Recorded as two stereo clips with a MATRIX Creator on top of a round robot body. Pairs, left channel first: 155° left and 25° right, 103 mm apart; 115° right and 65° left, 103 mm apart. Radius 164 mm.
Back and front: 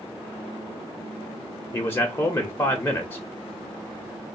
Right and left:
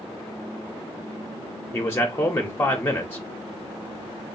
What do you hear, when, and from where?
1.7 s a man speaking: 155° right, 0.8 m